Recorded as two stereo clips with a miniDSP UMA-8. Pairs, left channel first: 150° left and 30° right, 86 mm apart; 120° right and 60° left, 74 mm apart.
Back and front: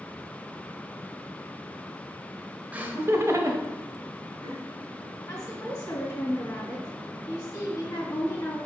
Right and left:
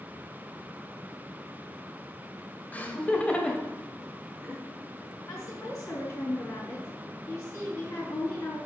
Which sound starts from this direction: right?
Laughter, at 2.7 s.